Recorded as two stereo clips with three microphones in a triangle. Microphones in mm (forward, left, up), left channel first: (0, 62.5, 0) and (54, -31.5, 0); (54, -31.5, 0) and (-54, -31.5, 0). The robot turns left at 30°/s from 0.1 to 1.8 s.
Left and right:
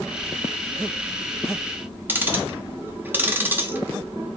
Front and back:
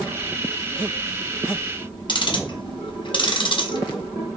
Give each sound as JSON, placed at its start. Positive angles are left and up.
{"t": 2.1, "sound": "ticking", "azimuth_deg": 5, "distance_m": 0.7}